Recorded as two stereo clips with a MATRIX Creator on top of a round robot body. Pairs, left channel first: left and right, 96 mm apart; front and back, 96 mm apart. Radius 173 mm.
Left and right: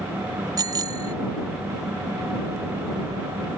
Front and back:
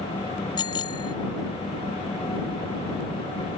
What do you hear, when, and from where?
0.6 s a bicycle bell: 40° right